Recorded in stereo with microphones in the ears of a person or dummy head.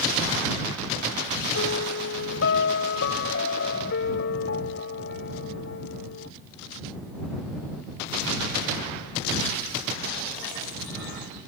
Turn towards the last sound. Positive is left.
turn(degrees=65)  # may be behind; listen again after turning